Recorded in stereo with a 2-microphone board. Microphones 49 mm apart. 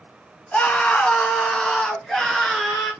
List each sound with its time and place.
0.5 s a scream: 25° left (ahead or behind), 1.7 m; by 2.9 s centre (ahead or behind), 2.5 m